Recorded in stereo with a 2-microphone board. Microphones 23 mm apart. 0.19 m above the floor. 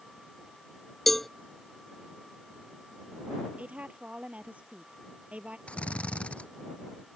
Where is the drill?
65° left (ahead or behind).